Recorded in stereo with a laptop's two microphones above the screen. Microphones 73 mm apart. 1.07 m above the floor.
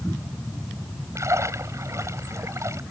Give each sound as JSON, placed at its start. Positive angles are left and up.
{"t": 1.1, "sound": "a splash", "side_deg": -45}